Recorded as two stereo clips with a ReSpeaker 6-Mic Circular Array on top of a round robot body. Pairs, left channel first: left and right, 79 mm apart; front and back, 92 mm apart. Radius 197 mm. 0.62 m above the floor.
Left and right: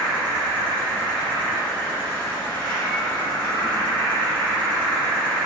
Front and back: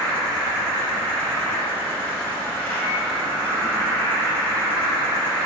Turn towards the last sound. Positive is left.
turn(degrees=75)